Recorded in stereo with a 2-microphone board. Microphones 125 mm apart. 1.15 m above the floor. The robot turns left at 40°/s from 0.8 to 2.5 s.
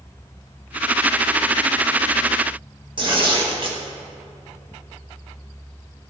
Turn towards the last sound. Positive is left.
turn(degrees=-40)  # may be behind; listen again after turning